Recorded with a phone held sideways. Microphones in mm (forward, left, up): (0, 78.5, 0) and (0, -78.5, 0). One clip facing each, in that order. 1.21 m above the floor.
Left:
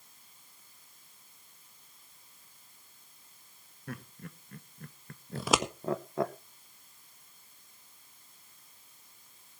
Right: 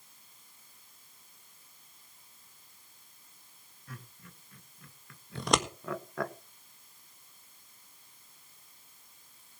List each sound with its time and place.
3.9 s laughter: 60° left (ahead or behind), 1.9 m; by 6.3 s 20° left (ahead or behind), 1.0 m
5.3 s scissors: 5° left (ahead or behind), 1.5 m